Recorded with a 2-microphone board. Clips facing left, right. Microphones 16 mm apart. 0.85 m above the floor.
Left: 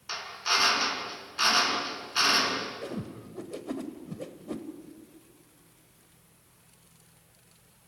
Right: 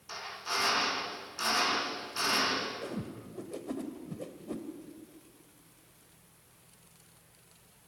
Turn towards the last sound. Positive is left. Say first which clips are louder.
# left 2 dB
turn(degrees=30)  # may be behind; listen again after turning